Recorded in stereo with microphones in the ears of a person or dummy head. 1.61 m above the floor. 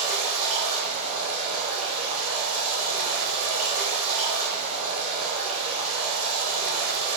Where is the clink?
No clink in this recording.